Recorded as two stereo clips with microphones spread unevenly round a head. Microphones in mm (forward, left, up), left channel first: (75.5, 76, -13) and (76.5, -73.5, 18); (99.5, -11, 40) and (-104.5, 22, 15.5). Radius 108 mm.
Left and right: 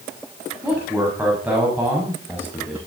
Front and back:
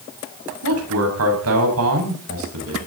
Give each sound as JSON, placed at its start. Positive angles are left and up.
{"t": 0.6, "sound": "a man speaking", "azimuth_deg": -175, "distance_m": 7.0}